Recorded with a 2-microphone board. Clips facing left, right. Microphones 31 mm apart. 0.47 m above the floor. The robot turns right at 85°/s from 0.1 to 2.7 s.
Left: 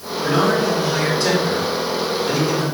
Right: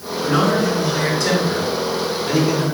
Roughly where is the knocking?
No knocking in this recording.